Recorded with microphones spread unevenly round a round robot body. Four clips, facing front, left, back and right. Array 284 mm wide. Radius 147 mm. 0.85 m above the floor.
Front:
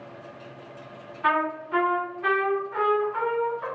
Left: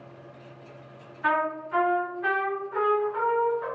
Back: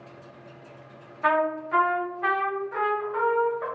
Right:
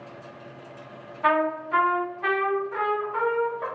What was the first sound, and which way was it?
A trumpet, 145° right.